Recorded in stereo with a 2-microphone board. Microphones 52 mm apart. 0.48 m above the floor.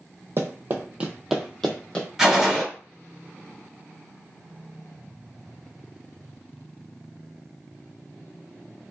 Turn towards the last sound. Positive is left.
turn(degrees=-10)  # may be behind; listen again after turning